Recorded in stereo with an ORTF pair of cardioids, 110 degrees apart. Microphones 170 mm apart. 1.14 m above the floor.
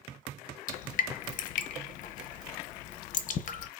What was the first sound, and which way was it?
Dripping, 50° left.